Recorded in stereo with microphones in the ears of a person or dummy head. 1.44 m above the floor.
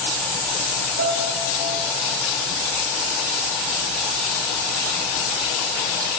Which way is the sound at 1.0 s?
55° right (ahead or behind).